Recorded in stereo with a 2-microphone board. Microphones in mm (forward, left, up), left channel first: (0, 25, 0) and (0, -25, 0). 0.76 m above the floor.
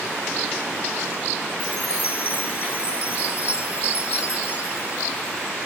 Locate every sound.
1.6 s a chime: 30° right (ahead or behind), 4 m